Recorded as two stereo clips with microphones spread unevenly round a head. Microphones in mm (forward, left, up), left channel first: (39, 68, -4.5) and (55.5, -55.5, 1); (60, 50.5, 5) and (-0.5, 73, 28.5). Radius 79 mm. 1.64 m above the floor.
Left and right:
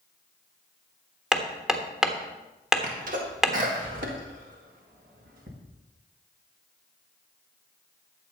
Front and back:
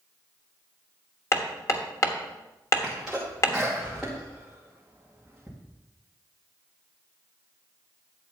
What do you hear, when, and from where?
1.3 s hammering: 10° right, 1.3 m
2.8 s a sneeze: 120° right, 2 m